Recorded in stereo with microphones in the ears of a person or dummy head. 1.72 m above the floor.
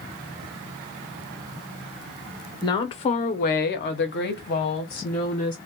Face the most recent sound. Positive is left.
turn(degrees=45)  # may be behind; listen again after turning